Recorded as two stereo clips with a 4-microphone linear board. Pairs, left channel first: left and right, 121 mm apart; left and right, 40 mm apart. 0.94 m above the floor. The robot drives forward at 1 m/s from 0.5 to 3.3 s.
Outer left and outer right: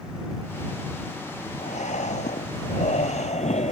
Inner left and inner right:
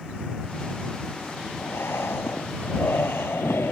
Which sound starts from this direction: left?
Breathing, at 1.6 s.